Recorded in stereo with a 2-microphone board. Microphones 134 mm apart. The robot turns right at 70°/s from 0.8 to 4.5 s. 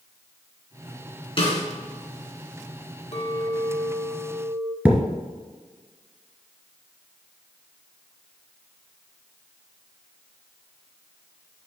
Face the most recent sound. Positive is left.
turn(degrees=-10)  # may be behind; listen again after turning